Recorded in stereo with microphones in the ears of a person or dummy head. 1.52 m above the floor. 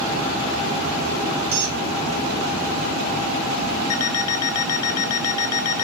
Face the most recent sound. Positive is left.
turn(degrees=25)  # may be behind; listen again after turning